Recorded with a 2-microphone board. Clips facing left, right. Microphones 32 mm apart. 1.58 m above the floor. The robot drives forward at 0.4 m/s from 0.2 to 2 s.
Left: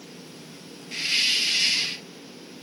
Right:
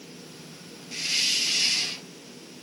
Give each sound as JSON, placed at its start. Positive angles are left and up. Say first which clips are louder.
{"t": 0.9, "sound": "a hiss", "louder": "left 3 dB", "side_deg": 20, "distance_m": 0.7}